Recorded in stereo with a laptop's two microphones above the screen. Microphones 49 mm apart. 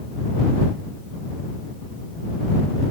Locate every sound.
Only background noise.